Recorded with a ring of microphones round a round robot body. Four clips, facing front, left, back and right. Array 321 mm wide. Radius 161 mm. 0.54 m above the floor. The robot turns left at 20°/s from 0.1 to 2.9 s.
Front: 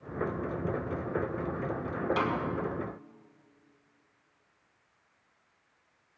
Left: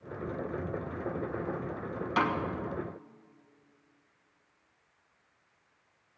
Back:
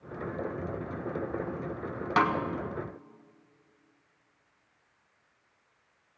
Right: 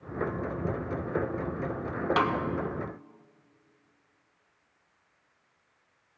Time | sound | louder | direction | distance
2.2 | a snare drum | right 1 dB, back 8 dB | 145° right | 1.3 m